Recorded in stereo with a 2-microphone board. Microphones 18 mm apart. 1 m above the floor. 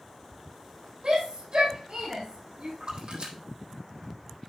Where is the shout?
75° right (ahead or behind), 5 m.